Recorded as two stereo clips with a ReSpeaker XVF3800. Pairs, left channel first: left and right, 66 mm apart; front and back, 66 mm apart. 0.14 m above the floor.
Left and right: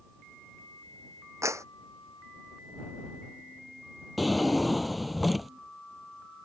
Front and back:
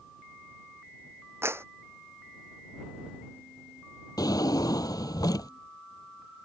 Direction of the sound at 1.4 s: 130° right.